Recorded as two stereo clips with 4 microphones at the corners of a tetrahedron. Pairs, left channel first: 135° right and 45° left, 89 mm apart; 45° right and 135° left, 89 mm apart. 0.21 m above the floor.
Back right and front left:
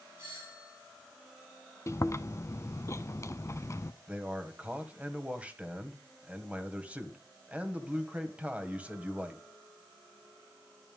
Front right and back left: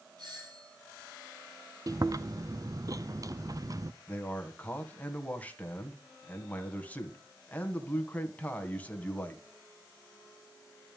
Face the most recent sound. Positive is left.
turn(degrees=-5)